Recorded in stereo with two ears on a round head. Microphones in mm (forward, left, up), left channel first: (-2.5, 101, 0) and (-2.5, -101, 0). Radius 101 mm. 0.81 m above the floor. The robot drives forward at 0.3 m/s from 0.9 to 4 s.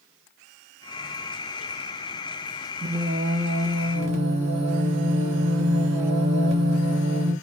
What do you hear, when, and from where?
2.8 s singing: 35° right (ahead or behind), 1.7 m; by 7.3 s 30° right (ahead or behind), 2.0 m